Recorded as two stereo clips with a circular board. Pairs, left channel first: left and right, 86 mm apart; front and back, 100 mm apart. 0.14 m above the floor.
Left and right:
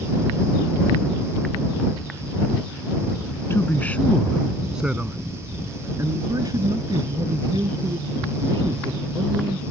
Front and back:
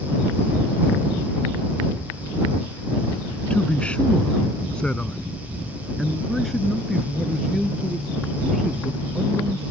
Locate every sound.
3.5 s a man speaking: 65° left; by 9.6 s 95° right